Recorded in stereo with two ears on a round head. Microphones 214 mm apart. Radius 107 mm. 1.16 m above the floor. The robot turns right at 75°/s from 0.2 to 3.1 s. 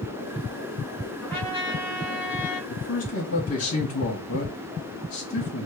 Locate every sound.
1.2 s a trumpet: straight ahead, 2.5 m; by 2.6 s 105° left, 2.5 m
2.7 s a man speaking: 85° left, 1.9 m; by 5.7 s 60° left (ahead or behind), 1.9 m